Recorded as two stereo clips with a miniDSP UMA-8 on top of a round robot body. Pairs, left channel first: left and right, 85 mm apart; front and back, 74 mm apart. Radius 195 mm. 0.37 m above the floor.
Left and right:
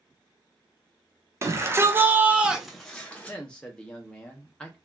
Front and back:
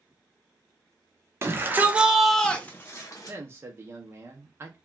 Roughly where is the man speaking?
Behind.